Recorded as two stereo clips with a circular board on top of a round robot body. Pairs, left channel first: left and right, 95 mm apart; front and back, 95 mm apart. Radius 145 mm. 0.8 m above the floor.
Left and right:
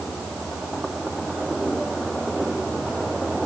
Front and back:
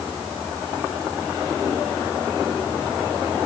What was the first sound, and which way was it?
Only background noise.